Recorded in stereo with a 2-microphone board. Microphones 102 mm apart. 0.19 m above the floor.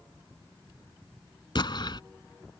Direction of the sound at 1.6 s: 55° left (ahead or behind).